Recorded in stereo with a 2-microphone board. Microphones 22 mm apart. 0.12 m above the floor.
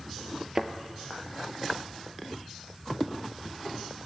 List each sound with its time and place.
0.6 s a thud: 20° right (ahead or behind), 0.5 m